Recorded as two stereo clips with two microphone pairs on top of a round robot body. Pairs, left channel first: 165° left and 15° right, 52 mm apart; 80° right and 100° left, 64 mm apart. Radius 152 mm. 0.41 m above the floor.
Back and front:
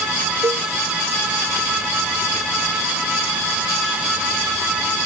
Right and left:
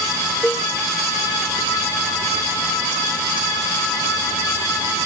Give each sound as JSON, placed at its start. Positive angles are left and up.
{"t": 0.4, "sound": "a cowbell", "azimuth_deg": -5}